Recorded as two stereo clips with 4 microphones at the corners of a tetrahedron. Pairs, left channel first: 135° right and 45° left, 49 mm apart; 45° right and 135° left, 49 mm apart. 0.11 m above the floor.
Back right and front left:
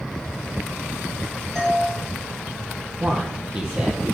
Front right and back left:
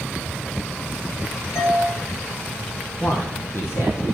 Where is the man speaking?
25° right, 3 m.